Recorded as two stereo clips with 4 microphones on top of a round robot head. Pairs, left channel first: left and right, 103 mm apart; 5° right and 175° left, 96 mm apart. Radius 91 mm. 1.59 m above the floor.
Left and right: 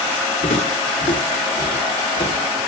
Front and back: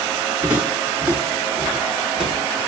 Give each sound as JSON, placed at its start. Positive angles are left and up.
{"t": 0.4, "sound": "footsteps", "azimuth_deg": 100, "distance_m": 7.5}